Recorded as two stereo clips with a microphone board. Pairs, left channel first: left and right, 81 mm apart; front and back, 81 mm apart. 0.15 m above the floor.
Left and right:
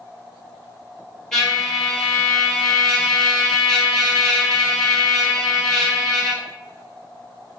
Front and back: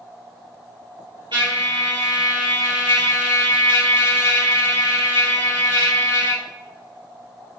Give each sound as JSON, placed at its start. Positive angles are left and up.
{"t": 1.3, "sound": "a trumpet", "azimuth_deg": 170, "distance_m": 2.0}